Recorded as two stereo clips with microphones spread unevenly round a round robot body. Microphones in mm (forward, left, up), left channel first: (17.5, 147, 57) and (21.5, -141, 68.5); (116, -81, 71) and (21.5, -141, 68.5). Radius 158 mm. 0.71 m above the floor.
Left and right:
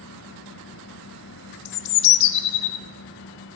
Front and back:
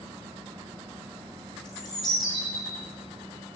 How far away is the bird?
About 0.5 m.